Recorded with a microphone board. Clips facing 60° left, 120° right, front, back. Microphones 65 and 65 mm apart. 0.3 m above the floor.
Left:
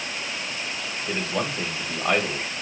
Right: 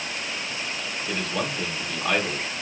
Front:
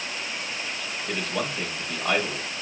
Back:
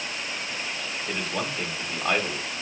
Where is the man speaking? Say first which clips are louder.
Left 1 dB, front 2 dB; 105° left, 1.1 m.